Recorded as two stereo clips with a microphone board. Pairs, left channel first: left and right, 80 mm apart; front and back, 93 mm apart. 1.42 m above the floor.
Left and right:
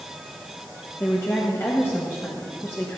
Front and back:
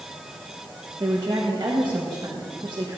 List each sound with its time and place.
1.0 s a woman speaking: 145° left, 1.3 m